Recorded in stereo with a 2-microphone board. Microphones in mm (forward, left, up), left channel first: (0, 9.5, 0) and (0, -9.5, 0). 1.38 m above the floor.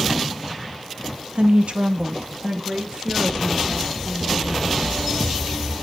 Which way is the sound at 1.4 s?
65° right (ahead or behind).